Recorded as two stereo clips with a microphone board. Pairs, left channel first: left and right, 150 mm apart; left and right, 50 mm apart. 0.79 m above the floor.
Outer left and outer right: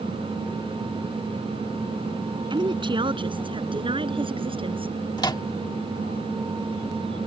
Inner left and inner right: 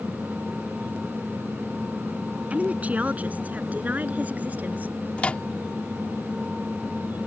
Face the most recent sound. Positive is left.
turn(degrees=30)  # may be behind; listen again after turning